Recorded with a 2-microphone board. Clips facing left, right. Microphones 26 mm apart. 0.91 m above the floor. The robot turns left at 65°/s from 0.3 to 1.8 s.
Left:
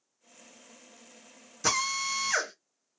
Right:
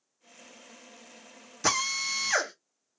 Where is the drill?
20° right (ahead or behind), 1.4 m; by 2.5 s 30° right (ahead or behind), 1.4 m.